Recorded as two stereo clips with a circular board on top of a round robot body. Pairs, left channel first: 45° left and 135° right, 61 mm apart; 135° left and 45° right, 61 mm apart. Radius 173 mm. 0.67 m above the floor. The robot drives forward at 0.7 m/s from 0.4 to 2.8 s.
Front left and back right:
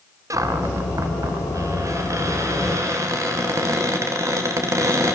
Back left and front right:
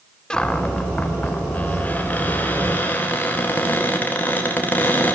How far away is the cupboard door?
About 1.4 m.